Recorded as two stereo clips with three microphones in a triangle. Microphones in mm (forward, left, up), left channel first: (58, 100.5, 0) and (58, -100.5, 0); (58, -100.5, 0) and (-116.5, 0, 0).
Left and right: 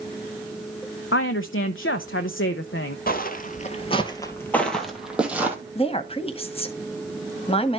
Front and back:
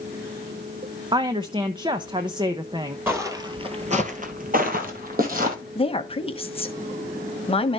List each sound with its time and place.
1.1 s a woman speaking: 85° left, 0.6 m
3.1 s footsteps: 75° left, 1.7 m; by 5.6 s 170° right, 2.5 m
5.8 s a woman speaking: 30° left, 1.2 m